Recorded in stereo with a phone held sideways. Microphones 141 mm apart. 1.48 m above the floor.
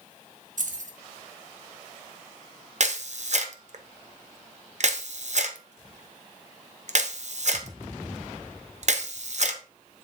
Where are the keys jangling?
65° right (ahead or behind), 1.4 m.